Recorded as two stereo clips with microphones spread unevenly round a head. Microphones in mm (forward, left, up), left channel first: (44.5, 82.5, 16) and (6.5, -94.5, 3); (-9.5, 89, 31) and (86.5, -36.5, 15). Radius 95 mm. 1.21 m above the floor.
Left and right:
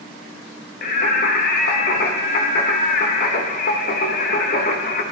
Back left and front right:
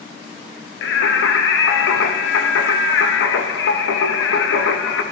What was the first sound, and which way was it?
Singing, 130° left.